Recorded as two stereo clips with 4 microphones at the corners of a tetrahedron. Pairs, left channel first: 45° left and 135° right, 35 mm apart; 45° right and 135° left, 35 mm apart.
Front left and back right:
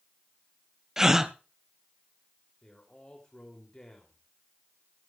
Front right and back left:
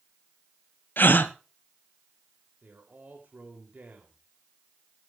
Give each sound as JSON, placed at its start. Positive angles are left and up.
{"t": 1.0, "sound": "a gasp", "azimuth_deg": -60, "distance_m": 1.0}
{"t": 2.6, "sound": "a man speaking", "azimuth_deg": 105, "distance_m": 3.0}